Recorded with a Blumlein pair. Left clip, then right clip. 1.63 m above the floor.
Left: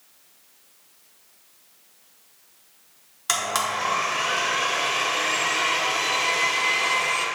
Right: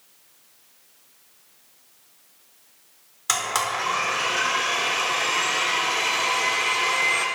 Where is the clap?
I don't hear a clap.